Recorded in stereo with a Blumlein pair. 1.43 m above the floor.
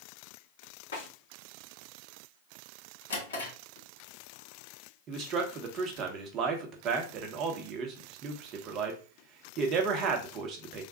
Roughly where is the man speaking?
Ahead right.